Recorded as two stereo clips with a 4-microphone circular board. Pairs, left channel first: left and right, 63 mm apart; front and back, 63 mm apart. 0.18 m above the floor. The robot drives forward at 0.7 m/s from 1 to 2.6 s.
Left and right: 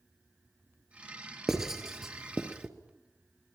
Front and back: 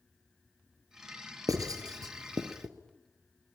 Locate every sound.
1.5 s writing: 175° right, 2.5 m